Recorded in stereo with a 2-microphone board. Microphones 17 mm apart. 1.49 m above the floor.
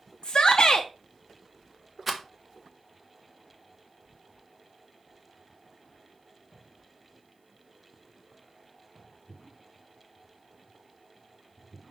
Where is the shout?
55° left (ahead or behind), 0.6 m.